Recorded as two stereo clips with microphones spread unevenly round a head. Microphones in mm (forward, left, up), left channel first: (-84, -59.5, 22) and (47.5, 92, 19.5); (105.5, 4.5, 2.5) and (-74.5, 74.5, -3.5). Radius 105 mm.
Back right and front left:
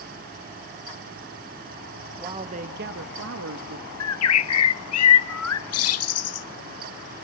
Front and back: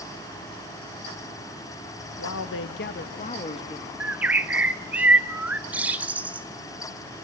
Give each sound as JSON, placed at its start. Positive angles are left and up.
{"t": 2.2, "sound": "a man speaking", "azimuth_deg": -25, "distance_m": 1.5}
{"t": 4.0, "sound": "a bird", "azimuth_deg": -120, "distance_m": 0.9}